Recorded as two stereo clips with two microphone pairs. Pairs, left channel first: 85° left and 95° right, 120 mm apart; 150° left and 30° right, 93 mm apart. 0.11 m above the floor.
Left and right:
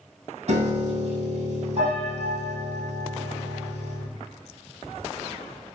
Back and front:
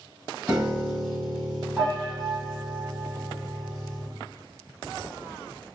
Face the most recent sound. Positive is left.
turn(degrees=-115)